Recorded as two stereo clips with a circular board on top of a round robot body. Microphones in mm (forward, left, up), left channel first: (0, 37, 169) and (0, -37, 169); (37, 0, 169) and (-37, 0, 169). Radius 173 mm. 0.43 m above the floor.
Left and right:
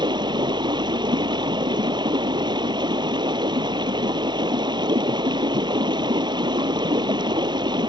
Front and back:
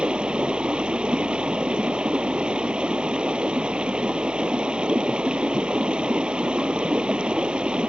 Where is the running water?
105° right.